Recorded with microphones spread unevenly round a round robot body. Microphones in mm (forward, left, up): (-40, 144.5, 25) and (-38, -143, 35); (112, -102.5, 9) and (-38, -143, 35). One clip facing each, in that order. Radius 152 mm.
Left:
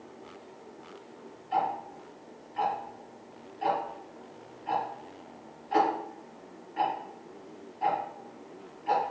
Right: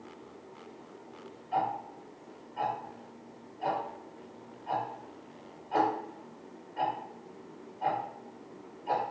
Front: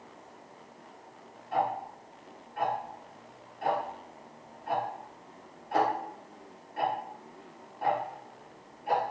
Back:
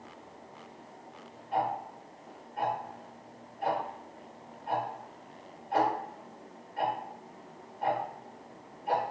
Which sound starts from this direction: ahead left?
Ticking, at 1.5 s.